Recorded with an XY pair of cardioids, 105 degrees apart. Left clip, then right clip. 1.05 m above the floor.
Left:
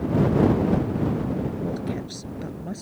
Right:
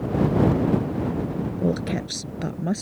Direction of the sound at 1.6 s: 55° right.